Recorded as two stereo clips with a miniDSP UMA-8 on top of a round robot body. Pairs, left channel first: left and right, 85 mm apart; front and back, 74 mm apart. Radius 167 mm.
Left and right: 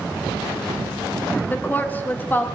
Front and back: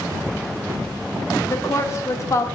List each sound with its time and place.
1.5 s a woman speaking: 30° left, 1.7 m